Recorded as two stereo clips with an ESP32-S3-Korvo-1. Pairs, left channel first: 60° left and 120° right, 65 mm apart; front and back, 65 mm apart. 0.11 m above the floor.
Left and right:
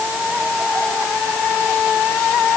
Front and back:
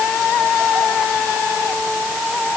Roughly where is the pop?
No pop in this recording.